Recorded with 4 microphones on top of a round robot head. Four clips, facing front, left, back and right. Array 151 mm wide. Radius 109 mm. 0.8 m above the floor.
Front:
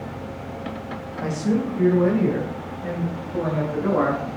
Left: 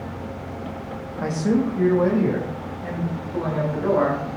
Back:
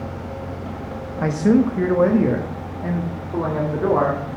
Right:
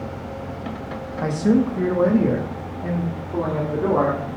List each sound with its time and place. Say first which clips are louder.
1.2 s a man speaking: right 3 dB, back 7 dB; 170° right, 1.0 m; by 4.2 s 145° right, 3 m